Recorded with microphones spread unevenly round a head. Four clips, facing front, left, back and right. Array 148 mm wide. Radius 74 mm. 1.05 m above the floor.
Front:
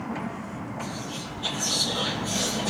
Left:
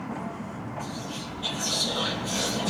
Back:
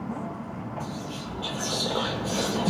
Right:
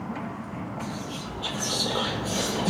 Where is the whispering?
145° right, 0.9 m.